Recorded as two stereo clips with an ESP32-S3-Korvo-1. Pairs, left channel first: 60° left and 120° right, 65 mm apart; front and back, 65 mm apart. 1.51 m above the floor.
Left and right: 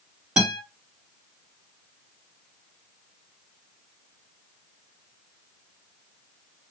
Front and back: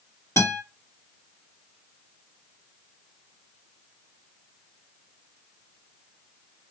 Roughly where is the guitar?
Ahead right.